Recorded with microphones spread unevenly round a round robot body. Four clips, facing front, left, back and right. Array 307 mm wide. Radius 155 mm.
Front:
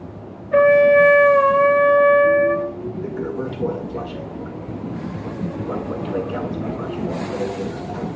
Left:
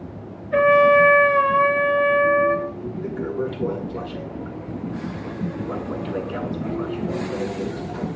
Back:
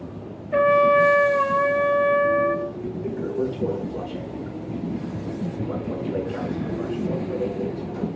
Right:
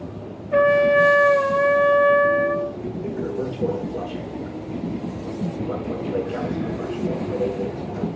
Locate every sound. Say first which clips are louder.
0.5 s a trumpet: left 2 dB, front 5 dB; 15° right, 9 m
3.0 s a toilet flushing: left 1 dB, back 2 dB; 5° left, 7.5 m